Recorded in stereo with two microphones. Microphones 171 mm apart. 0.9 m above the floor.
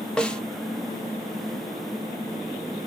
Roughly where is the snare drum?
Centre.